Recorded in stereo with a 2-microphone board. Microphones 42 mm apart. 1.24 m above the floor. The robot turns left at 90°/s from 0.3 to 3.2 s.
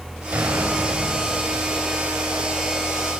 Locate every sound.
0.3 s an explosion: 55° right, 7.5 m; by 1.8 s 175° left, 7.5 m